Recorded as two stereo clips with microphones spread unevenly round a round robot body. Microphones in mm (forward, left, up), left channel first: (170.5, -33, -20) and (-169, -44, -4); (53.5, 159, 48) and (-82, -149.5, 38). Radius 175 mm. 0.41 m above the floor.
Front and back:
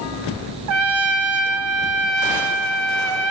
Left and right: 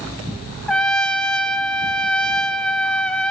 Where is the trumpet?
155° left, 0.7 m.